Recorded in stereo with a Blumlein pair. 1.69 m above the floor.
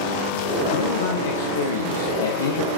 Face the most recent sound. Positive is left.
turn(degrees=65)